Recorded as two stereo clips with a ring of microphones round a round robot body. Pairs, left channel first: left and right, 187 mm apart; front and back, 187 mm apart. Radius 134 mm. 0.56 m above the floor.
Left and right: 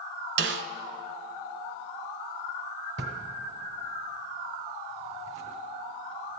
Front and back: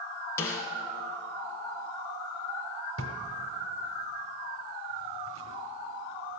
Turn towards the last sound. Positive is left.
turn(degrees=-140)